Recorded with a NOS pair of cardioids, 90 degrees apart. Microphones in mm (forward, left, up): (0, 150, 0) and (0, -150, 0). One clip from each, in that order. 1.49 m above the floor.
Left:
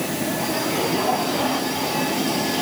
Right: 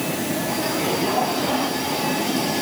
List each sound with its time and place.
Only background noise.